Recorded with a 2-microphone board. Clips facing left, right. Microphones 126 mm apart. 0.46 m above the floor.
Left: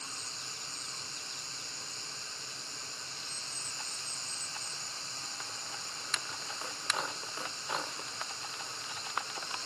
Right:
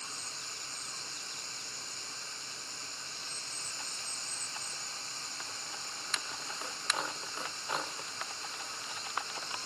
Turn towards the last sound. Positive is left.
turn(degrees=-50)  # may be behind; listen again after turning